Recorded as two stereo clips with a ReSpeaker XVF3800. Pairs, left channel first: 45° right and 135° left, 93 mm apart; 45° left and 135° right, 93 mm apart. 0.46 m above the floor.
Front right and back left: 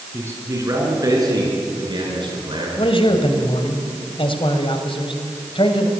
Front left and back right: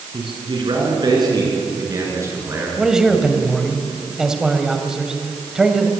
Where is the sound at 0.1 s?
160° right, 6 m; by 2.8 s 160° left, 6.5 m.